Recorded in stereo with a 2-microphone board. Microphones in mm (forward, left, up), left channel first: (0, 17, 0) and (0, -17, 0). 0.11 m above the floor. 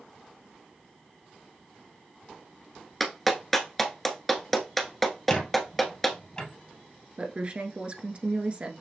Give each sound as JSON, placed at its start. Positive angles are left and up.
{"t": 3.0, "sound": "a clap", "side_deg": 5, "distance_m": 1.1}
{"t": 5.3, "sound": "a squeak", "side_deg": 25, "distance_m": 1.9}
{"t": 7.2, "sound": "a woman speaking", "side_deg": -35, "distance_m": 1.3}